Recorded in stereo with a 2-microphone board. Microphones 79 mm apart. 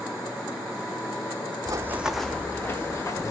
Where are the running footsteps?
45° right (ahead or behind), 0.6 m; by 3.3 s 40° left (ahead or behind), 1.6 m.